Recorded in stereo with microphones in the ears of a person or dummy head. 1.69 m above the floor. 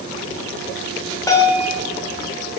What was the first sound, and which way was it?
A bell, 20° left (ahead or behind).